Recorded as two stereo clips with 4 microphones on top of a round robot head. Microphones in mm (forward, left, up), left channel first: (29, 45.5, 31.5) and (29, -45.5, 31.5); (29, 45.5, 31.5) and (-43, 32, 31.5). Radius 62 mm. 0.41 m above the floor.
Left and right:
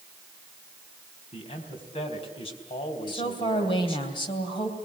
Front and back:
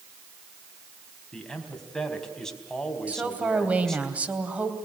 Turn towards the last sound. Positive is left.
turn(degrees=120)